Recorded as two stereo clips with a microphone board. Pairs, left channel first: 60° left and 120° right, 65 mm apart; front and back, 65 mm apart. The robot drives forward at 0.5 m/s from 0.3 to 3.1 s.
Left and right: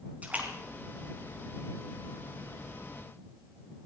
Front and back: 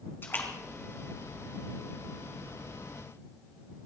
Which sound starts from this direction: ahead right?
A splash, at 0.2 s.